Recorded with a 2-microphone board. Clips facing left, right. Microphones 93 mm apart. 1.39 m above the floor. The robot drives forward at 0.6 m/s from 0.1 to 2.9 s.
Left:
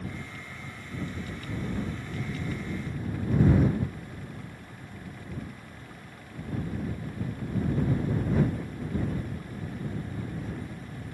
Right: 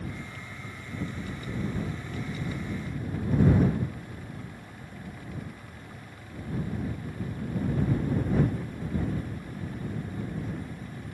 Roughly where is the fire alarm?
I don't hear a fire alarm.